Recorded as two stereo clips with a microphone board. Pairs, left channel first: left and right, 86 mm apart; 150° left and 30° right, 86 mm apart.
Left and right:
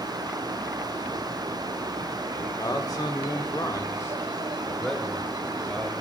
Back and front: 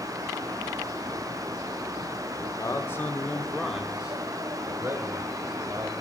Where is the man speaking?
120° left, 1.4 m; by 5.9 s 5° left, 2 m.